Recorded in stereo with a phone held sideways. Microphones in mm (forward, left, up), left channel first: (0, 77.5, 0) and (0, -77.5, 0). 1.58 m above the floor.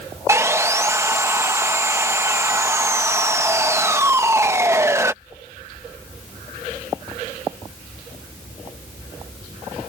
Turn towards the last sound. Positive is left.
turn(degrees=-20)  # may be behind; listen again after turning